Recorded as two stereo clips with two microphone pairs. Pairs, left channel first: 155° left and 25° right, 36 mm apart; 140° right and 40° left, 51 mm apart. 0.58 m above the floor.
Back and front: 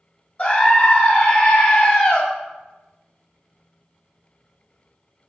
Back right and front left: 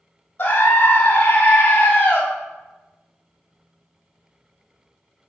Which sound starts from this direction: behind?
A scream, at 0.4 s.